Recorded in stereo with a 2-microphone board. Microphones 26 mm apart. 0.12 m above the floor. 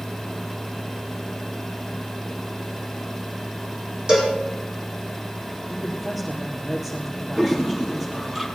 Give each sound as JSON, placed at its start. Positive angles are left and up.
{"t": 4.1, "sound": "a cowbell", "side_deg": -25, "distance_m": 5.0}
{"t": 5.7, "sound": "a woman speaking", "side_deg": -10, "distance_m": 3.5}
{"t": 7.4, "sound": "a toilet flushing", "side_deg": -15, "distance_m": 3.0}